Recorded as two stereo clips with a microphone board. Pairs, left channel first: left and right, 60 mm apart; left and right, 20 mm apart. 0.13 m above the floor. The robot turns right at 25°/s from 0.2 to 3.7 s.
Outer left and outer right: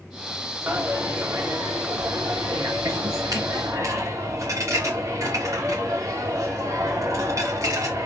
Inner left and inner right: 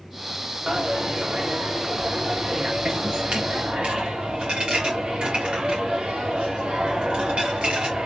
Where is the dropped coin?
145° right, 3 m; by 8.1 s 65° right, 3 m.